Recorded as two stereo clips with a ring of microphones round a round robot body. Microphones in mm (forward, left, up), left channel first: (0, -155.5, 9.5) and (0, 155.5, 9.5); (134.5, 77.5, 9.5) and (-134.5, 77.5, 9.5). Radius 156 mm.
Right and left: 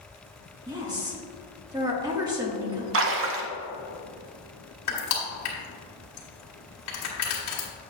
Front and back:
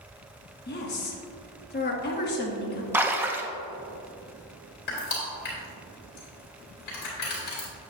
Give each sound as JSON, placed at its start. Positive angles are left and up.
{"t": 0.7, "sound": "a woman speaking", "azimuth_deg": 20, "distance_m": 1.2}
{"t": 2.9, "sound": "a splash", "azimuth_deg": 100, "distance_m": 0.7}
{"t": 4.9, "sound": "crushing", "azimuth_deg": -55, "distance_m": 2.0}